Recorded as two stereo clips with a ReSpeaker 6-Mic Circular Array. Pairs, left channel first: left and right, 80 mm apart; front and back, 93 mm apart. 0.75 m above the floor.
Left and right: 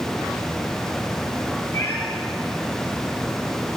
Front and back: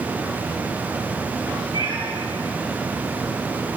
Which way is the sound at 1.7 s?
145° left.